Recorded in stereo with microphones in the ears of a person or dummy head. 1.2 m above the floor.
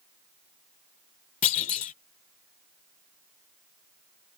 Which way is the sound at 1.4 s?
35° left (ahead or behind).